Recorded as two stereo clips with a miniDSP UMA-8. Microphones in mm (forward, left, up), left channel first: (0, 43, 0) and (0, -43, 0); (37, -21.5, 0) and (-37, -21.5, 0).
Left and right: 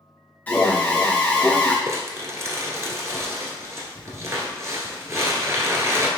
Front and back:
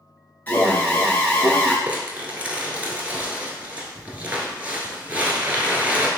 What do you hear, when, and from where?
0.5 s an alarm: 35° left, 1.0 m
1.9 s crumpling: 120° right, 0.7 m